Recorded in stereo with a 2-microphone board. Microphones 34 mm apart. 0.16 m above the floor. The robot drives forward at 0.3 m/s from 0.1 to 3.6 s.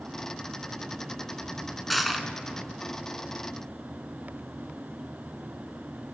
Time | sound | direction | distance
1.9 | crushing | centre (ahead or behind) | 1.6 m